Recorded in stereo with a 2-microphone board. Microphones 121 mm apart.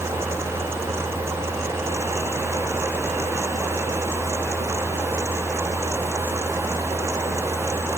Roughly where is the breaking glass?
No breaking glass in this recording.